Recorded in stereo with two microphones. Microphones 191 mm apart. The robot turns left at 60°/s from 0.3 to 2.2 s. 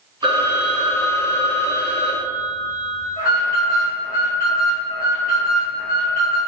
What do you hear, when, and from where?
0.2 s a phone ringing: 150° right, 0.6 m; by 3.1 s 95° left, 0.6 m
3.2 s an alarm: 50° left (ahead or behind), 1.4 m